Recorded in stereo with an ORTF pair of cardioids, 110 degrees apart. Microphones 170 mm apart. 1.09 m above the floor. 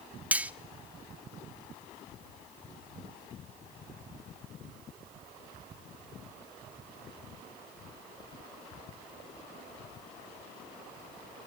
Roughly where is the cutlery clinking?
Ahead.